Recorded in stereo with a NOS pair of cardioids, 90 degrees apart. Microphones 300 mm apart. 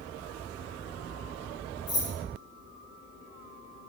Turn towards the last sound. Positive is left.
turn(degrees=40)